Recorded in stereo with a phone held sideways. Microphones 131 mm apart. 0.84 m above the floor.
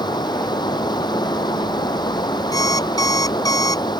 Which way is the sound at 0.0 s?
30° left (ahead or behind).